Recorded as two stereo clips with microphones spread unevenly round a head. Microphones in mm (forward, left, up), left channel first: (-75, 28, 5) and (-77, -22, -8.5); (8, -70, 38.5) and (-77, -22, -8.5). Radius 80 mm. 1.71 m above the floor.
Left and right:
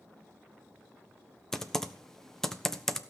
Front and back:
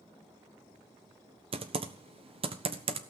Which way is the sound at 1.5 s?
170° left.